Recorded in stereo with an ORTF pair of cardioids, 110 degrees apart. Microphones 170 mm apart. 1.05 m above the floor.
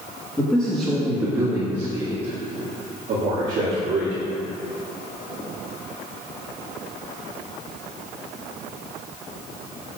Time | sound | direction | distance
0.4 | a man speaking | 15° left | 1.5 m